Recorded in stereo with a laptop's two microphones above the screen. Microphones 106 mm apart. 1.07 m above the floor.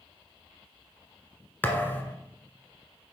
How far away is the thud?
About 1.2 m.